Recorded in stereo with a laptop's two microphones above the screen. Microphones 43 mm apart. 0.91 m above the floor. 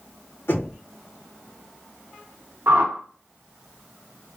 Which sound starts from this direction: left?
Knocking, at 0.5 s.